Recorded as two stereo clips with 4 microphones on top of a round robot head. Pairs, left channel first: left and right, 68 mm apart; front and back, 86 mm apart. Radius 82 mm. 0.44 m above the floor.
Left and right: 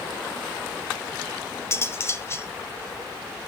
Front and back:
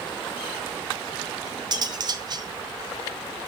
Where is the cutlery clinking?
140° left, 1.1 m.